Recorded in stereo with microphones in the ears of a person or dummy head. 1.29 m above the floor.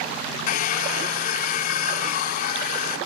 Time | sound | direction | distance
0.5 | a hair dryer | 45° left (ahead or behind) | 2.5 m